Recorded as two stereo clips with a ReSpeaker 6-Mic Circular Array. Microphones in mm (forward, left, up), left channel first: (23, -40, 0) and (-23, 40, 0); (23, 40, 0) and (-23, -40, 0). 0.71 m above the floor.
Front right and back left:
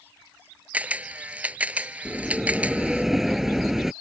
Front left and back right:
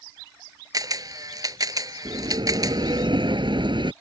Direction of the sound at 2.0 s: 155° right.